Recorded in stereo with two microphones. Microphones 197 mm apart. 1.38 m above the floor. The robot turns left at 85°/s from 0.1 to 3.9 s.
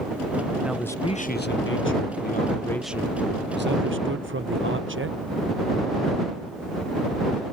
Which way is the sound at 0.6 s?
170° right.